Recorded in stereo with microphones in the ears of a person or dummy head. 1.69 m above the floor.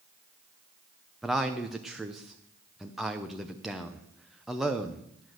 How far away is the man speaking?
About 0.8 m.